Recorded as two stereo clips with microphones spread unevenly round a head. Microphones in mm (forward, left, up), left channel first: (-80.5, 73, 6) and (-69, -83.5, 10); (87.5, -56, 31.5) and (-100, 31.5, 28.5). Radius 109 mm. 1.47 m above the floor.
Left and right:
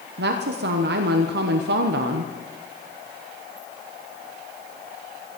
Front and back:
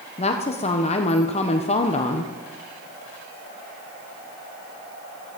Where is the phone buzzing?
I don't hear a phone buzzing.